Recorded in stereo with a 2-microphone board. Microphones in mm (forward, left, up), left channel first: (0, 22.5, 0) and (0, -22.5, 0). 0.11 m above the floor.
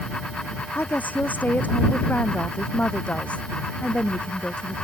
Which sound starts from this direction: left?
A woman speaking, at 0.8 s.